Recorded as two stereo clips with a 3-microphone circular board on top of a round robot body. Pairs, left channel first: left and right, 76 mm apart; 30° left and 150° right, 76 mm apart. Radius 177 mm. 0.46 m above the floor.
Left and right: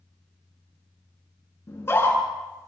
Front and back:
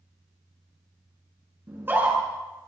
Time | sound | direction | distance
1.7 | a scream | 145° left | 9.5 m